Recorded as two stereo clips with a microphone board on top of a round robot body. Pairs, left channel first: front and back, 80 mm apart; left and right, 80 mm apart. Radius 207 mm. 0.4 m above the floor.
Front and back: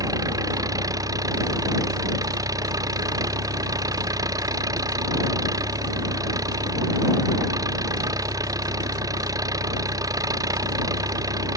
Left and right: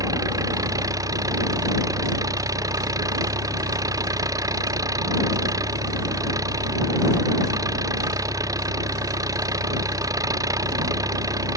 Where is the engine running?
140° right.